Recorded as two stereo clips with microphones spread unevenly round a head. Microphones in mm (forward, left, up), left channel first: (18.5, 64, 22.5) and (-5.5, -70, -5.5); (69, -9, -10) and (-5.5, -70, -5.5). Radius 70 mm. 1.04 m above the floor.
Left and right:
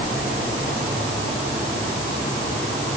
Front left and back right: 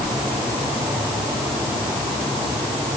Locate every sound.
Only background noise.